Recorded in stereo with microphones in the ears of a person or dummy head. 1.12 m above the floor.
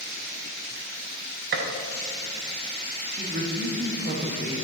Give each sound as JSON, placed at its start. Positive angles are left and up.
{"t": 1.5, "sound": "a gunshot", "side_deg": -50, "distance_m": 1.0}
{"t": 3.1, "sound": "a woman speaking", "side_deg": -50, "distance_m": 1.8}